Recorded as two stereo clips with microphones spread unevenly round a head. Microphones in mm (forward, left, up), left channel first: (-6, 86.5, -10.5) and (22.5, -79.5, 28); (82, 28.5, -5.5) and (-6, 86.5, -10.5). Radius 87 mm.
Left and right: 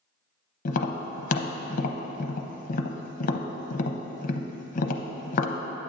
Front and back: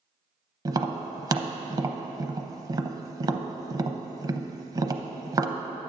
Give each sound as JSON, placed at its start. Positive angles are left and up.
{"t": 0.7, "sound": "tapping", "azimuth_deg": 100, "distance_m": 0.6}